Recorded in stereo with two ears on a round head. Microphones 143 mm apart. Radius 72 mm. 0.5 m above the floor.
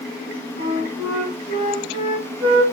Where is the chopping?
No chopping in this recording.